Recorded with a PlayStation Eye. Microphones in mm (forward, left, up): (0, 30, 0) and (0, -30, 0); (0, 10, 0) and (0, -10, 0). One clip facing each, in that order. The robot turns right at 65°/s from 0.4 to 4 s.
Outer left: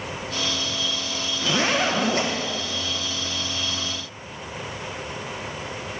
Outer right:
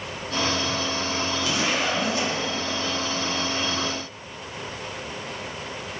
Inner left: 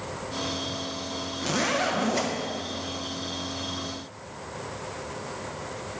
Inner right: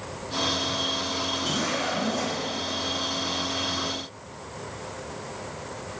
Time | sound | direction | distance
1.4 | a zipper | 45° left | 1.0 m